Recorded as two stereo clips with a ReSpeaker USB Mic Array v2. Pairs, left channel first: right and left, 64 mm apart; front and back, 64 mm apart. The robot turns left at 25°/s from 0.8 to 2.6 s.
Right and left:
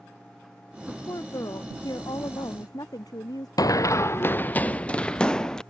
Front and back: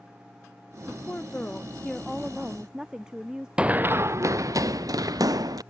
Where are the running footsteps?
105° right; by 5.6 s 170° right.